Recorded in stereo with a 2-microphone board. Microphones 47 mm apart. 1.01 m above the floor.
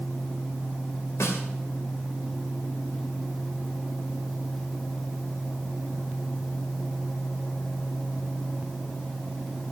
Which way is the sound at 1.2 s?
80° left.